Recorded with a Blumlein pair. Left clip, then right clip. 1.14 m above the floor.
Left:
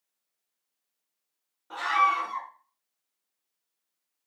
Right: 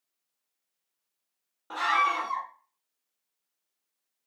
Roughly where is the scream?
Ahead right.